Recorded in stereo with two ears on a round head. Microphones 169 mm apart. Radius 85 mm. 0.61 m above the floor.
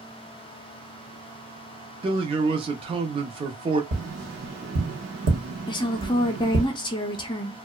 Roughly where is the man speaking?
Right.